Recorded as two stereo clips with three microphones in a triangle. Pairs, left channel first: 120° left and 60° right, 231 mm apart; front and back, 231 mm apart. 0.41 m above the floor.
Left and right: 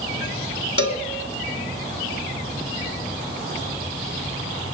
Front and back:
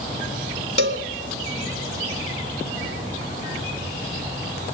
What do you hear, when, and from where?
0.8 s a cowbell: 145° left, 1.5 m